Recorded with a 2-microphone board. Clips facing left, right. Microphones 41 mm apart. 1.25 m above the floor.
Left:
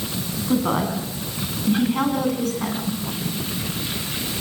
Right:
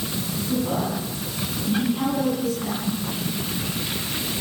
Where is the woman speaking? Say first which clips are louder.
Left 4 dB; 75° left (ahead or behind), 9 m; by 2.9 s 80° left, 9.5 m.